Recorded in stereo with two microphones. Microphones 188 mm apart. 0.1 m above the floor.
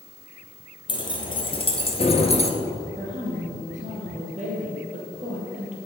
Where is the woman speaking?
40° right (ahead or behind), 3 m.